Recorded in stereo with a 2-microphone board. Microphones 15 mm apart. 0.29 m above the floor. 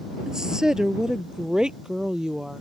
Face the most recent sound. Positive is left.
turn(degrees=-45)  # may be behind; listen again after turning